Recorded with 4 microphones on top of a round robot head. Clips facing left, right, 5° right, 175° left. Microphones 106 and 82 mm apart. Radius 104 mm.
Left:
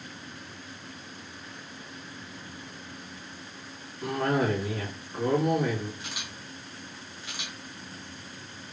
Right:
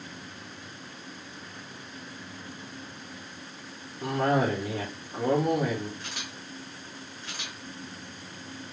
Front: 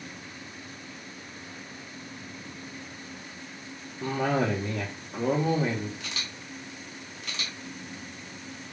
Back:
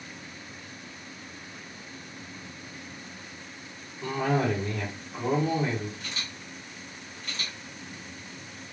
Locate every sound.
4.0 s a cough: 30° right, 1.0 m
6.0 s a camera shutter: 10° left, 1.2 m